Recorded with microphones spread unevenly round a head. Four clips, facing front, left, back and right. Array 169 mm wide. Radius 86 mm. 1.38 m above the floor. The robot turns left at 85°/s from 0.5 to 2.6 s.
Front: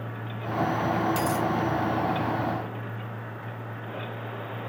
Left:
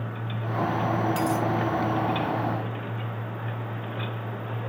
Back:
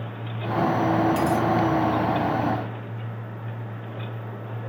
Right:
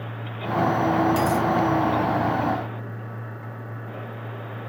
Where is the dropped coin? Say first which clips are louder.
Right 4 dB, back 4 dB; 20° right, 1.9 m; by 1.4 s 45° right, 1.9 m.